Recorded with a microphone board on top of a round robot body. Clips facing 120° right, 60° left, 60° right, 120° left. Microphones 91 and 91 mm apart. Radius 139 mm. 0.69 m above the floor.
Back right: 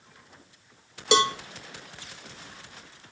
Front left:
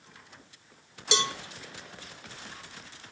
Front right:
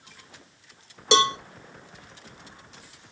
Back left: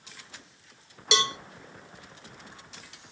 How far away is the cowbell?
About 0.9 m.